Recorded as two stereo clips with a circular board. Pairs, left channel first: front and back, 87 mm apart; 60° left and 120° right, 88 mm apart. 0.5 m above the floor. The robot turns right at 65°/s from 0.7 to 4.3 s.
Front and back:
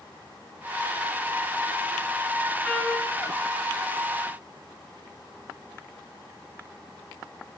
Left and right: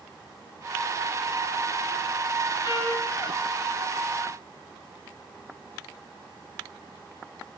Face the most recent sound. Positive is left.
turn(degrees=-175)